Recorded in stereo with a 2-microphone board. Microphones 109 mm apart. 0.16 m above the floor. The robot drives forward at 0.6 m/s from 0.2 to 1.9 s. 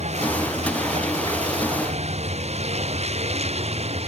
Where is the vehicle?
85° right; by 4.1 s 70° right (ahead or behind).